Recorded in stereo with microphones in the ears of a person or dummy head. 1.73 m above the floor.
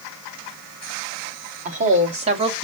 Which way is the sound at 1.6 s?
40° right (ahead or behind).